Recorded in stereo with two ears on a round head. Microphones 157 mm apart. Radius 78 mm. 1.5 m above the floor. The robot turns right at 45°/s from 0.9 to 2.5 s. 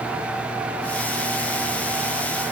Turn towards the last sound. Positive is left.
No sound to turn to.